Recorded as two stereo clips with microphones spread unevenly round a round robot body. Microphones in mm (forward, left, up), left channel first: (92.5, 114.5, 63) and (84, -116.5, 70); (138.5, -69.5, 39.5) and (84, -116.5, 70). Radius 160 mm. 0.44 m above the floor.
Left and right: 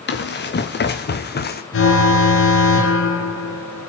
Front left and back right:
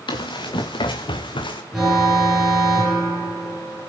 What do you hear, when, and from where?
0.1 s running footsteps: 45° left, 3 m; by 1.6 s 40° left, 2 m
1.7 s an alarm: 130° left, 3.5 m